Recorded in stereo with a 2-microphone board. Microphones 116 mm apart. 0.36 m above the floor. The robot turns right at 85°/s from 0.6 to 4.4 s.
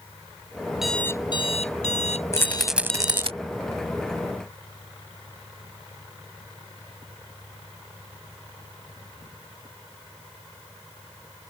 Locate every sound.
0.8 s an alarm clock: 5° right; by 3.3 s 150° right
2.3 s a rattle: 30° left (ahead or behind); by 3.3 s 55° right (ahead or behind)